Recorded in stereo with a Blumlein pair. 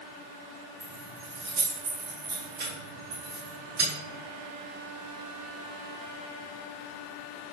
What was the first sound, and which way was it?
Keys jangling, 50° right.